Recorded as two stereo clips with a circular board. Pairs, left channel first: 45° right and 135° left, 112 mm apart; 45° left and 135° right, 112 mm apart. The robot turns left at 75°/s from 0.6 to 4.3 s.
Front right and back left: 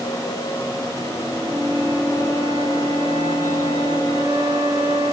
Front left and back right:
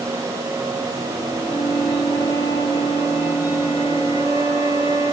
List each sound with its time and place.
1.4 s a flute: straight behind, 7 m; by 5.1 s 35° right, 7 m